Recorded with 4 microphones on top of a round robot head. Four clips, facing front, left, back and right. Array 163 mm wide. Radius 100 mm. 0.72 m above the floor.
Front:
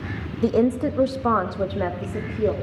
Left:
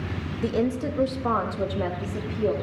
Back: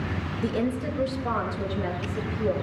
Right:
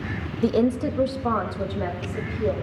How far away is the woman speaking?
About 0.7 m.